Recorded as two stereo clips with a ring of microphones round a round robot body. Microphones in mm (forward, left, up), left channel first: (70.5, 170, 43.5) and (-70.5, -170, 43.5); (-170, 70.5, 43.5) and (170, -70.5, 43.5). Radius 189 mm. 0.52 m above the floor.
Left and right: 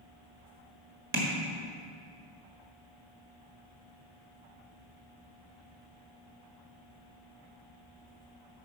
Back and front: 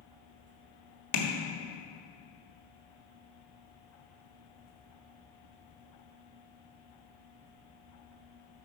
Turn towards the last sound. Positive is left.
turn(degrees=-170)